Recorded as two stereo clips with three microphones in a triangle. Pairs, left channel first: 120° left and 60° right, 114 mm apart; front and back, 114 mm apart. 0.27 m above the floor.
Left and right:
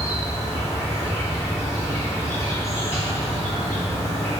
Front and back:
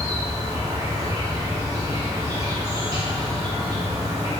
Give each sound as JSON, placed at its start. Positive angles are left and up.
{"t": 0.0, "sound": "an insect", "azimuth_deg": 170, "distance_m": 1.3}